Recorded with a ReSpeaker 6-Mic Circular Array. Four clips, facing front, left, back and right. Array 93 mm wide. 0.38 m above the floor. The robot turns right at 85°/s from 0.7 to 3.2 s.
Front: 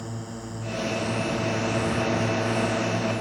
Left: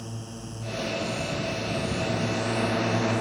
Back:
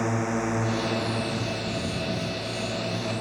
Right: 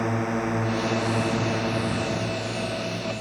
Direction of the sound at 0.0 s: 130° right.